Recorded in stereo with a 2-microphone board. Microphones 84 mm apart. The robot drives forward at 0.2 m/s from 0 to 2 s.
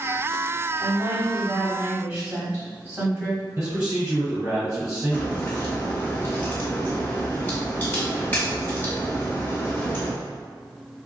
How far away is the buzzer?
No buzzer in this recording.